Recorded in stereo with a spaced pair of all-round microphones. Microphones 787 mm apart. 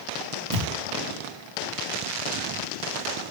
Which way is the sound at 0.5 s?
30° right (ahead or behind).